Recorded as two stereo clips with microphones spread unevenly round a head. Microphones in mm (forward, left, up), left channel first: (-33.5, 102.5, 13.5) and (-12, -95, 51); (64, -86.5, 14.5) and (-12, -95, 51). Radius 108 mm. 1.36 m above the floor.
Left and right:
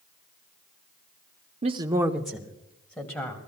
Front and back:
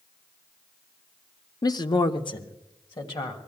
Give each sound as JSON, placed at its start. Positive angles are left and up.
{"t": 1.6, "sound": "a woman speaking", "azimuth_deg": -20, "distance_m": 0.7}